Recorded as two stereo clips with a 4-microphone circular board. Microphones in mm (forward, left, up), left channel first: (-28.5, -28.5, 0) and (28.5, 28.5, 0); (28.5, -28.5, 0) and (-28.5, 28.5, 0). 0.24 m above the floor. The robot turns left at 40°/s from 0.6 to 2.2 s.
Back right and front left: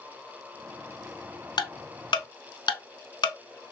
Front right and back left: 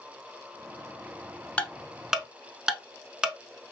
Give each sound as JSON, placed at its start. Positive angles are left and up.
{"t": 1.6, "sound": "ticking", "azimuth_deg": -120, "distance_m": 0.7}